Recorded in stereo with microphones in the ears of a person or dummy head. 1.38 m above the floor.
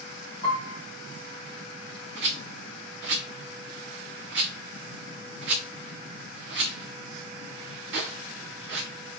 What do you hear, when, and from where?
0.4 s a piano: 45° left (ahead or behind), 1.5 m
2.2 s a rattle: 65° right (ahead or behind), 0.5 m